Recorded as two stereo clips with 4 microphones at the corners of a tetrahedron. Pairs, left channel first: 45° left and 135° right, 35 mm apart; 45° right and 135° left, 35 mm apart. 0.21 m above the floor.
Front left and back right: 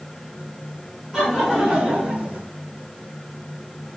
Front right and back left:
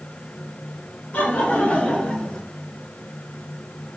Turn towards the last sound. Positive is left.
turn(degrees=-105)